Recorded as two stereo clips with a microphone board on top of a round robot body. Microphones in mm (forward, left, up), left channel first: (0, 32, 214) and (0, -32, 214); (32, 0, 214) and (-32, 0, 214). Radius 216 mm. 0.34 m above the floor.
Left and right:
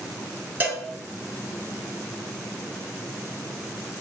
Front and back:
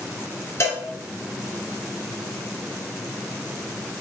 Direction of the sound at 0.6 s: 35° right.